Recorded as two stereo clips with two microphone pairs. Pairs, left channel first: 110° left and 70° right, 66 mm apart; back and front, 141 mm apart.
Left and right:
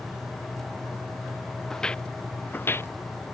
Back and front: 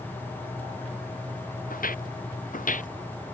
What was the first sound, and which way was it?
Footsteps, 170° right.